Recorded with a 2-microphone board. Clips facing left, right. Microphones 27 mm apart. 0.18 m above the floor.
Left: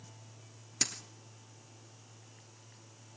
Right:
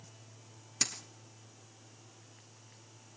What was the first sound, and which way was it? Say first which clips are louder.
A dropped coin: even; centre (ahead or behind).